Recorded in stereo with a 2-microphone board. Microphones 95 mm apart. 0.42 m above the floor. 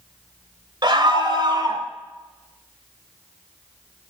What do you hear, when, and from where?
0.8 s a scream: 55° right (ahead or behind), 1.3 m; by 1.8 s 50° right (ahead or behind), 2 m